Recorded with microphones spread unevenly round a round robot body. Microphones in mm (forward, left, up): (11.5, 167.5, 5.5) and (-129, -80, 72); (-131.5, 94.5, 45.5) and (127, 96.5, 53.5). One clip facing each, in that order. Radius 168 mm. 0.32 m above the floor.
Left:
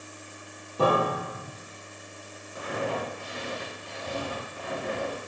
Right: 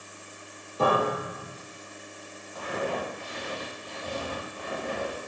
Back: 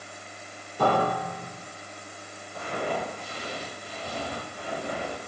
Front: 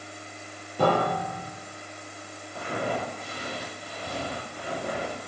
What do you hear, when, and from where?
0.8 s a piano: 15° left, 2 m
2.5 s footsteps: 10° right, 2 m; by 5.2 s 30° left, 2.5 m